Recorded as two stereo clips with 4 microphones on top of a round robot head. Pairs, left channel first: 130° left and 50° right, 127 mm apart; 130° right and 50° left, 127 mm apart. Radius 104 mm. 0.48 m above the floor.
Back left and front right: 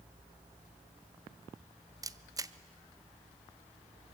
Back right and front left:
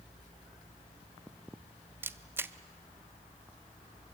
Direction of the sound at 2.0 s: 10° right.